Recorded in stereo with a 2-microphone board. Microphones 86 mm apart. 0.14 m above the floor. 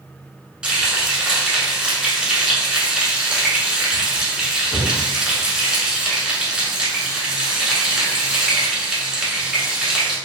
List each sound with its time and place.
0.6 s frying: 10° right (ahead or behind), 1.0 m